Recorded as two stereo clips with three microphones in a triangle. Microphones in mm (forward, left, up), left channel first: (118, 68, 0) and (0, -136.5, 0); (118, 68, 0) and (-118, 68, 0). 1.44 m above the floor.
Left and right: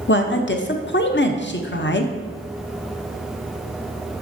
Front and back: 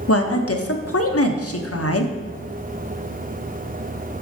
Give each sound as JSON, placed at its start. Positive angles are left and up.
{"t": 0.1, "sound": "a woman speaking", "azimuth_deg": 15, "distance_m": 0.7}